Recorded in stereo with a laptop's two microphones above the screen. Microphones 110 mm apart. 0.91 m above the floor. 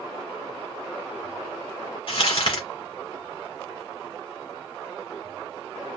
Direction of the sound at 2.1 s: 60° left (ahead or behind).